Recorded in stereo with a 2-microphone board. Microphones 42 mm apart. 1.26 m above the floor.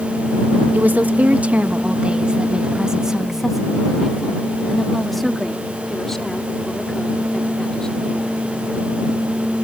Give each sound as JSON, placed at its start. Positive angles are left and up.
{"t": 0.7, "sound": "a woman speaking", "side_deg": -45}